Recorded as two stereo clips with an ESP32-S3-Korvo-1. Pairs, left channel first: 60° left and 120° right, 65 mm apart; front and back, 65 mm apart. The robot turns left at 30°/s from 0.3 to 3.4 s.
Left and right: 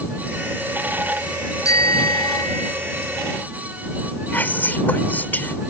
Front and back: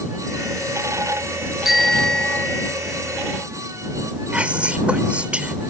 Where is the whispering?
115° left.